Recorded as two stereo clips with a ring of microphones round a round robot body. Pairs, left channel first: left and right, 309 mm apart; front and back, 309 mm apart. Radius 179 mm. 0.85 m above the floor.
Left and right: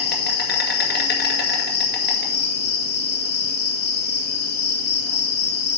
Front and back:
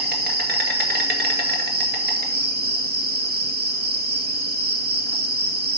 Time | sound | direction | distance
0.0 | an insect | 135° left | 1.9 m